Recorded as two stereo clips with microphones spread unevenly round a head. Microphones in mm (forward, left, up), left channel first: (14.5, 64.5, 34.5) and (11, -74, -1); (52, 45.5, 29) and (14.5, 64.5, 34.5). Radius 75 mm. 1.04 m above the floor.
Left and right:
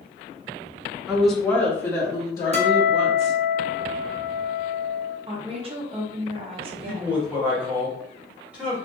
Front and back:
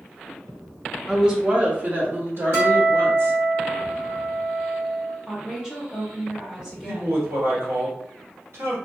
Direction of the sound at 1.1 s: 100° right.